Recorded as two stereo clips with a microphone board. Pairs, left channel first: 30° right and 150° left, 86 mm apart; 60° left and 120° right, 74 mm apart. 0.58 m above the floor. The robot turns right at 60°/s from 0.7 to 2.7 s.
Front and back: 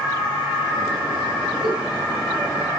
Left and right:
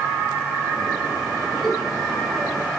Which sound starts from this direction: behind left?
A giggle, at 1.6 s.